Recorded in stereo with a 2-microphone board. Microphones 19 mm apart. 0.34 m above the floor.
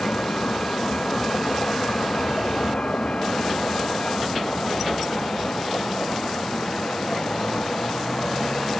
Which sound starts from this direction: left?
A vehicle, at 0.0 s.